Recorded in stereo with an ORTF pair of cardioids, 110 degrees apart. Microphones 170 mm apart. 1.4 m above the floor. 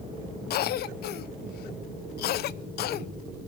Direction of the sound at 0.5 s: 70° left.